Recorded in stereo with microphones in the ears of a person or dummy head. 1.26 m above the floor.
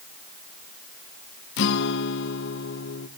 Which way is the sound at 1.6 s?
70° left (ahead or behind).